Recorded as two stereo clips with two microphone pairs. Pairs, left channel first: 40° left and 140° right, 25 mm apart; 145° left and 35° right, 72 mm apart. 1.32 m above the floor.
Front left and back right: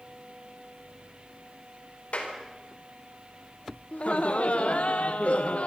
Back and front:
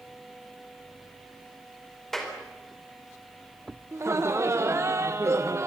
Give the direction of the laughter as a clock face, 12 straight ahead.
12 o'clock.